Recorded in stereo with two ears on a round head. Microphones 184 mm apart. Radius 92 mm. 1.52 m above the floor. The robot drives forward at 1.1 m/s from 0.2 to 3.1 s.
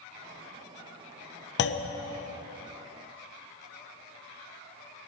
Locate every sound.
1.6 s a clunk: 55° left (ahead or behind), 0.8 m; by 1.9 s 60° left (ahead or behind), 0.7 m